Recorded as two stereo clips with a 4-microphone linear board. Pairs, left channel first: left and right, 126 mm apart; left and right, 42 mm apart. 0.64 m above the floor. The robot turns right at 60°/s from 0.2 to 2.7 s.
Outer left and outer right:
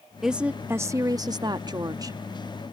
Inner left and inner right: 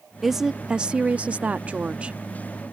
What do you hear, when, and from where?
0.2 s a woman speaking: 175° right; by 2.2 s 55° right